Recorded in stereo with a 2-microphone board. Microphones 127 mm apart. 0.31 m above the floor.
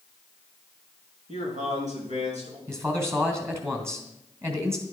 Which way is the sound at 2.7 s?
20° right (ahead or behind).